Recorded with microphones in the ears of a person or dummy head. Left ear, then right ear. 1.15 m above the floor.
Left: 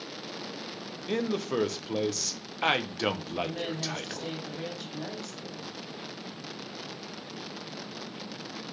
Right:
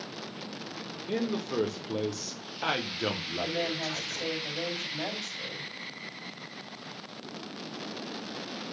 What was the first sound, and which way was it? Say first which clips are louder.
A man speaking: left 2 dB; 25° left (ahead or behind).